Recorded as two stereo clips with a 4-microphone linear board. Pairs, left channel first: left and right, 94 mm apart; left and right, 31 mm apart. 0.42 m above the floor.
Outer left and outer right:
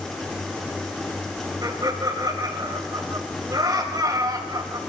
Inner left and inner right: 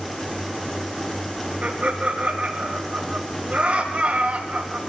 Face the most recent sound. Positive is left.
turn(degrees=-40)  # may be behind; listen again after turning